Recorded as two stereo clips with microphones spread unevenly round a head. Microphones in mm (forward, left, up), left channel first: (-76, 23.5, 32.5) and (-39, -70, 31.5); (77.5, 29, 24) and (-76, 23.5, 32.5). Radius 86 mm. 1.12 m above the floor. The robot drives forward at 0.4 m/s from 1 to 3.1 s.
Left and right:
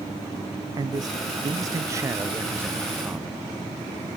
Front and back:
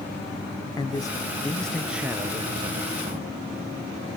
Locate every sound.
0.8 s a man speaking: 50° right, 0.8 m; by 3.4 s 140° right, 0.9 m